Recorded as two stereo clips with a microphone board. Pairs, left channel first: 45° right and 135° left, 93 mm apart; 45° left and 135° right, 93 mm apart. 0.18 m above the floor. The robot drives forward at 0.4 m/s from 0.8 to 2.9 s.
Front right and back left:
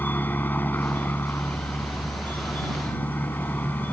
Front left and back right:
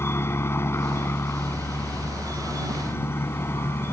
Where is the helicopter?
5° left; by 3.9 s 10° left.